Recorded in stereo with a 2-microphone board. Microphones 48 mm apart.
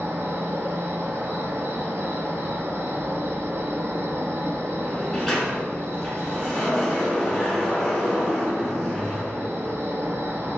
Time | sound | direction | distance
0.0 | an insect | 60° right (ahead or behind) | 0.8 m
4.8 | a sliding door | 10° left (ahead or behind) | 1.0 m